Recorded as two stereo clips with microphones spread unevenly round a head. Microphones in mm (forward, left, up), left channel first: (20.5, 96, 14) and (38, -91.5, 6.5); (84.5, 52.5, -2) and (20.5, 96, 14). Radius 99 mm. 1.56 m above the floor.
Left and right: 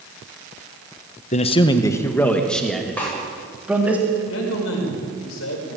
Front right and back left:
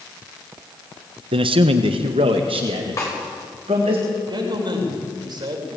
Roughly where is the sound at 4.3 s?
Behind left.